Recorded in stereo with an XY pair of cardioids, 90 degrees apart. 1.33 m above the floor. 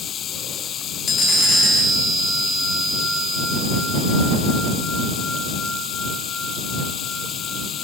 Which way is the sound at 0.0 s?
70° left.